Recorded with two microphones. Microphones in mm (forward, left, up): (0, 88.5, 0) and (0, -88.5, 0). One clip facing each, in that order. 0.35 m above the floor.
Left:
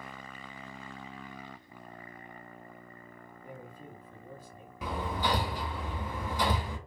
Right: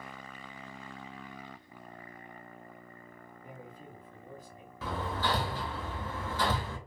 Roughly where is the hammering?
Centre.